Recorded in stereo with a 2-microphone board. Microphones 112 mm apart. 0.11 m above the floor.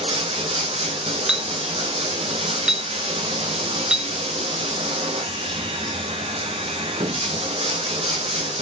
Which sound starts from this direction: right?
Running water, at 0.0 s.